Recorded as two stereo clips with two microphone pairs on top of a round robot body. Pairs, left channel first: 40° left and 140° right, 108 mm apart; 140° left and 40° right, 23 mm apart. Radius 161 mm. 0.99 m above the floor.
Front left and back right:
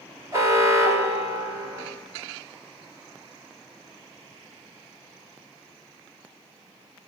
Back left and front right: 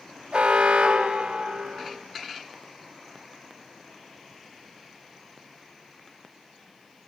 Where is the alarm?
75° right, 4.5 m.